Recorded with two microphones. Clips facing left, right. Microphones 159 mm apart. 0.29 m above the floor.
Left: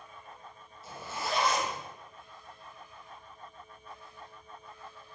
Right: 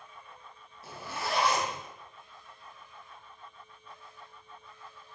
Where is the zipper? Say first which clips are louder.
Even; 80° right, 1.7 m.